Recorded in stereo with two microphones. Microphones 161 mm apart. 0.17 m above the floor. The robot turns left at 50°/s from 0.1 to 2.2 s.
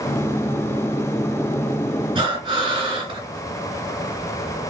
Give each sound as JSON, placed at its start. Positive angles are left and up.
{"t": 2.1, "sound": "breathing", "side_deg": -30, "distance_m": 2.5}